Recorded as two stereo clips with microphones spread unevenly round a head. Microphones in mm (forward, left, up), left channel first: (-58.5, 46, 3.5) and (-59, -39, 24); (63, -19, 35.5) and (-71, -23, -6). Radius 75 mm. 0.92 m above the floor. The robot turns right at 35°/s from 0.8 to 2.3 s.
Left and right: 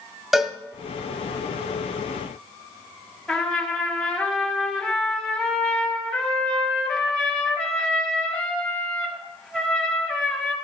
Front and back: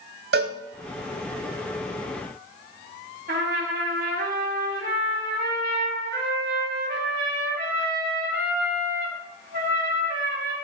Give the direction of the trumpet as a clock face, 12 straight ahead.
6 o'clock.